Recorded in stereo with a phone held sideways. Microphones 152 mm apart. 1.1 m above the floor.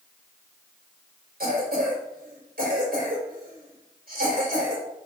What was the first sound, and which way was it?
A cough, 85° right.